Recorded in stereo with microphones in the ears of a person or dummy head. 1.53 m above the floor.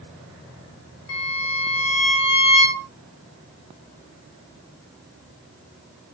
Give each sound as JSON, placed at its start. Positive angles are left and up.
{"t": 1.1, "sound": "a violin", "side_deg": 70, "distance_m": 6.5}